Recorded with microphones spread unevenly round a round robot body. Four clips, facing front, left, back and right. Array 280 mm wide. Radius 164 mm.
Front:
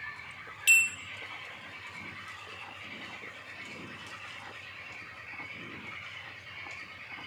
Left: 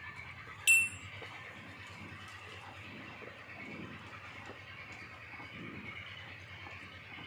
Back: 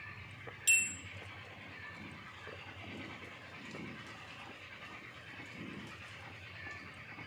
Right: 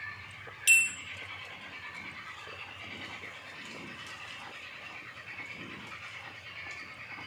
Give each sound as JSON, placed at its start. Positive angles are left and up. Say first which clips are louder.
{"t": 0.7, "sound": "a bell", "louder": "right 3 dB, front 8 dB", "azimuth_deg": 5, "distance_m": 1.5}